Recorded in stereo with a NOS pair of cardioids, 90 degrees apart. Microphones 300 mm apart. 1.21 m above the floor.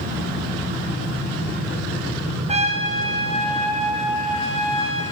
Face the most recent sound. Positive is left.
turn(degrees=-20)